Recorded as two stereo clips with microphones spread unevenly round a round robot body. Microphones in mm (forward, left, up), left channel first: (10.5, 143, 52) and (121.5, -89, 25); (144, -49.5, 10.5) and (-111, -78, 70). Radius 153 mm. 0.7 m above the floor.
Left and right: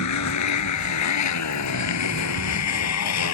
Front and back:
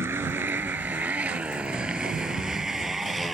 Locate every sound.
0.0 s a motorcycle: 105° left; by 3.3 s 95° left